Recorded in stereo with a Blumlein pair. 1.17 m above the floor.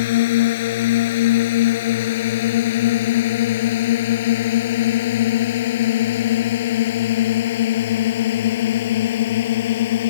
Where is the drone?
55° left.